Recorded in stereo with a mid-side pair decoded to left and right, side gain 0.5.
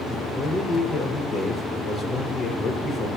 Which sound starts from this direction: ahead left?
A man speaking, at 0.1 s.